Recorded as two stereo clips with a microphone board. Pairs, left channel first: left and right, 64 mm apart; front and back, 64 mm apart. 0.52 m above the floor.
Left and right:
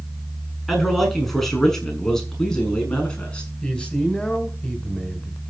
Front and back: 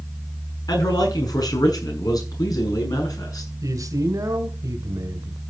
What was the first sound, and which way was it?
A man speaking, straight ahead.